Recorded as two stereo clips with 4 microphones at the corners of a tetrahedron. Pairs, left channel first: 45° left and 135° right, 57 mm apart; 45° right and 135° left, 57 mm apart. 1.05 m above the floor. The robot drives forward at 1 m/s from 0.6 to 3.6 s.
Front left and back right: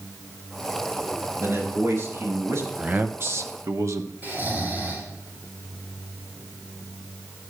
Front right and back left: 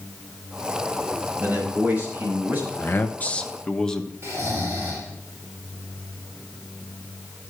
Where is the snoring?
175° left, 6 m.